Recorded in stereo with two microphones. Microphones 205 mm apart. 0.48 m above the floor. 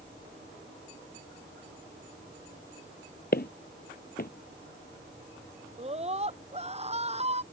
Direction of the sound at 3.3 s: 50° left (ahead or behind).